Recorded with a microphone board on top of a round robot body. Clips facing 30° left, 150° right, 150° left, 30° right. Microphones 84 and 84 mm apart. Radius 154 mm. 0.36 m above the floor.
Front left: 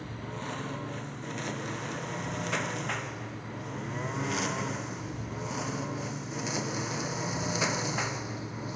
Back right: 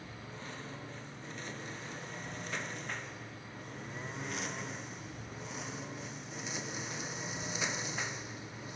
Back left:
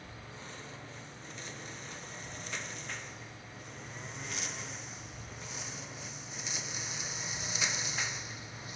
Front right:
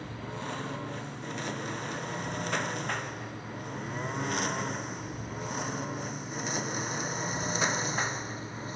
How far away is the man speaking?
No man speaking in this recording.